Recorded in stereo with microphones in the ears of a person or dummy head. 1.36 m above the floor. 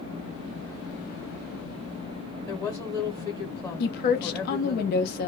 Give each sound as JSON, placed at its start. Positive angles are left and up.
{"t": 2.5, "sound": "a woman speaking", "side_deg": 20, "distance_m": 0.7}
{"t": 3.8, "sound": "a woman speaking", "side_deg": 50, "distance_m": 0.8}